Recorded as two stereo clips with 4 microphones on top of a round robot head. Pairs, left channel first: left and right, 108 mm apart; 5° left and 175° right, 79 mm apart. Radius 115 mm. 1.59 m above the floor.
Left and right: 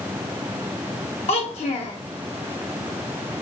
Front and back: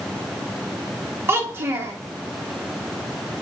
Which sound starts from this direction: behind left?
A child speaking, at 1.3 s.